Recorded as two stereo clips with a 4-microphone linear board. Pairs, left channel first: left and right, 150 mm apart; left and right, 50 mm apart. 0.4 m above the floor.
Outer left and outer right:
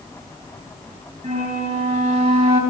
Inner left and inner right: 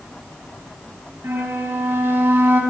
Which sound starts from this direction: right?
A flute, at 1.2 s.